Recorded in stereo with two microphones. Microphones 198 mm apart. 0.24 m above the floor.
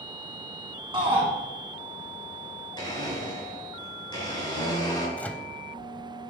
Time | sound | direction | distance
0.9 | a shout | 25° right (ahead or behind) | 1.7 m
2.8 | a blender | 20° left (ahead or behind) | 4.5 m
5.2 | a microwave | 10° left (ahead or behind) | 0.8 m